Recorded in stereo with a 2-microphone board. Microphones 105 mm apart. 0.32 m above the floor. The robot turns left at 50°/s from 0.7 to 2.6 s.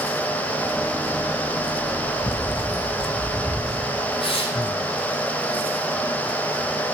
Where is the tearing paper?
60° left (ahead or behind), 5 m.